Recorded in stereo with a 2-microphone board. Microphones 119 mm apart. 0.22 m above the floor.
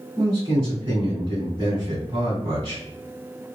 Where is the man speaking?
30° right (ahead or behind), 1.7 m.